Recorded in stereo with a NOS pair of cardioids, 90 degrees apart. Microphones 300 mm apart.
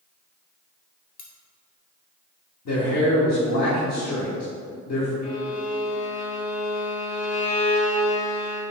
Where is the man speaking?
65° left, 2 m.